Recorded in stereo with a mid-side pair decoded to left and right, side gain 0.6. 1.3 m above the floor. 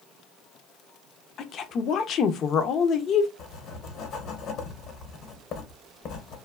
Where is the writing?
50° left, 0.9 m.